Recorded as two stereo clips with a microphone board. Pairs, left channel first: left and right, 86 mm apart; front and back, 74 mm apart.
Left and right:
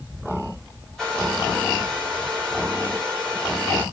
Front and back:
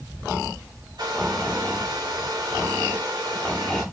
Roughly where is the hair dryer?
Behind.